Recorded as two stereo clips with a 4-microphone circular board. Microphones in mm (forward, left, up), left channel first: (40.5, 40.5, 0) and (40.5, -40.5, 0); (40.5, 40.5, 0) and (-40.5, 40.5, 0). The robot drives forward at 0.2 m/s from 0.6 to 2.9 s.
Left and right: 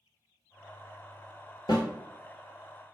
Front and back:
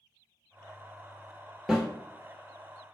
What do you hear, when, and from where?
1.7 s a snare drum: 95° left, 1.1 m